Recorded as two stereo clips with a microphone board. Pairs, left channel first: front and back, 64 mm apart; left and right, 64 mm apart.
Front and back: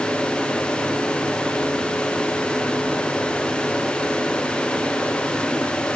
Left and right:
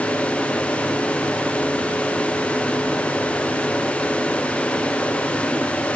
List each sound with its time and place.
Only background noise.